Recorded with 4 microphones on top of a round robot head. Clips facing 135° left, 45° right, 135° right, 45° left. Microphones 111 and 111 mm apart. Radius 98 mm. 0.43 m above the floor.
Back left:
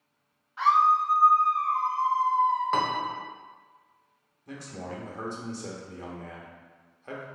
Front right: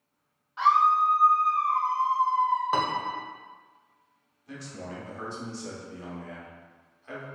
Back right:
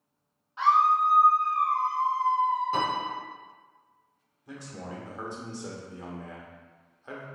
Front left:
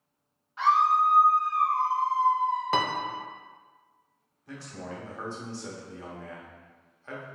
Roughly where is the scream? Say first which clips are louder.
Even, even; right.